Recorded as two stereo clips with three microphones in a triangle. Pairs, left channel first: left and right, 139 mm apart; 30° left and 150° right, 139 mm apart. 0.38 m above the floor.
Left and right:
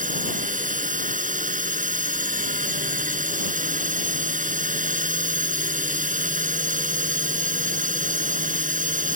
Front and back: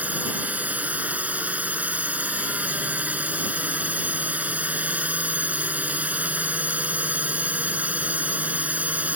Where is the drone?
70° right.